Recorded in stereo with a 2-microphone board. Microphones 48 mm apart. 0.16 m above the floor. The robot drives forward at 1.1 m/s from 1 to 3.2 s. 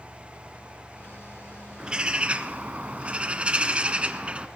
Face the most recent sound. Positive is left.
turn(degrees=-25)  # may be behind; listen again after turning